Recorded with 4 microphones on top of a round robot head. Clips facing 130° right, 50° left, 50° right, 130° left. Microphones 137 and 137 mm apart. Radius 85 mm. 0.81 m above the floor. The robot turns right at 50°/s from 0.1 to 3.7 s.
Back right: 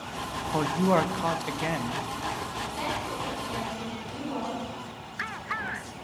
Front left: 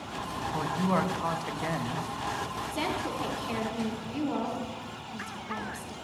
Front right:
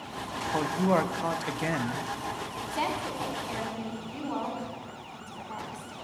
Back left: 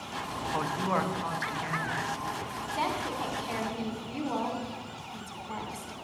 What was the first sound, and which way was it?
A man speaking, 115° right.